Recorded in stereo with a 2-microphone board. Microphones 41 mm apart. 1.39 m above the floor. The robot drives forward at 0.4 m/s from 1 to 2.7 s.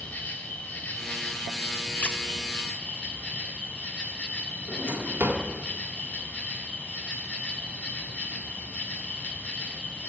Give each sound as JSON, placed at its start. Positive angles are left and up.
{"t": 0.0, "sound": "an insect", "side_deg": 45, "distance_m": 1.6}
{"t": 2.0, "sound": "a squeak", "side_deg": 35, "distance_m": 0.5}
{"t": 4.7, "sound": "a drawer", "side_deg": -55, "distance_m": 1.8}